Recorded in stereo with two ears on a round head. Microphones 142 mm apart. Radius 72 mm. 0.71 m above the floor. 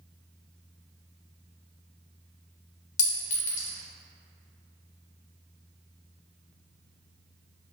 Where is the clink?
50° left (ahead or behind), 0.8 m.